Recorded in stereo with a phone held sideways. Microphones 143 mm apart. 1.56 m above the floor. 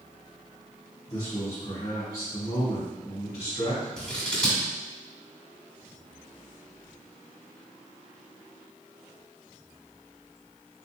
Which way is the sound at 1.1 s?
25° left (ahead or behind).